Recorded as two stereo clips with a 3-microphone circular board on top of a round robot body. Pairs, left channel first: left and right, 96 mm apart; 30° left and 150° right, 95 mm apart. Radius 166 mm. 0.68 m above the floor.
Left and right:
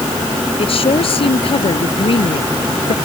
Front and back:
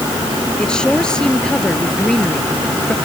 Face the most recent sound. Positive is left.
turn(degrees=115)